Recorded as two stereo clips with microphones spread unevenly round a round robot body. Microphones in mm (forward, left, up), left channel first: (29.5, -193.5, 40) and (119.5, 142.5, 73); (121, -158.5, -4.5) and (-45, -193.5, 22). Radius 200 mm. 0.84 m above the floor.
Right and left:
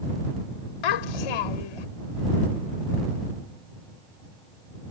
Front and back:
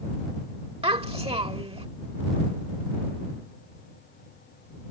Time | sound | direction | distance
0.8 | a child speaking | 110° right | ?